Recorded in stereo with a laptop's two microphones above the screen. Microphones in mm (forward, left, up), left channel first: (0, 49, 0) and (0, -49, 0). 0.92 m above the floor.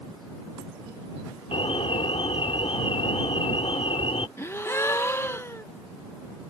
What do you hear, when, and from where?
1.5 s an alarm: 75° left (ahead or behind)
4.4 s a gasp: 25° left (ahead or behind)